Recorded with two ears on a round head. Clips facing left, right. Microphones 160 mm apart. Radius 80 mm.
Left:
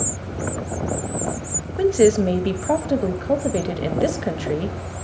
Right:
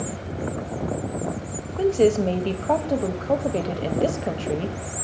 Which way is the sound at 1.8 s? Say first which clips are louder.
Left 3 dB; 10° left (ahead or behind).